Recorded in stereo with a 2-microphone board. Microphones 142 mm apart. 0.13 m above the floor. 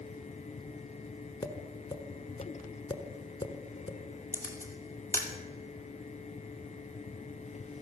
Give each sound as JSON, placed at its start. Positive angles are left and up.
{"t": 1.4, "sound": "tapping", "side_deg": 30, "distance_m": 1.2}
{"t": 4.3, "sound": "a camera shutter", "side_deg": 15, "distance_m": 2.5}